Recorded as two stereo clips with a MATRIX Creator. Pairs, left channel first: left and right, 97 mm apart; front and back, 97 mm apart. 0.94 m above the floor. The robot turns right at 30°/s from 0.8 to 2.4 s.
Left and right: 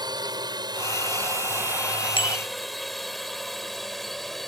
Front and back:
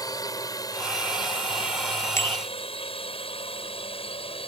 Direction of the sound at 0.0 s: 50° right.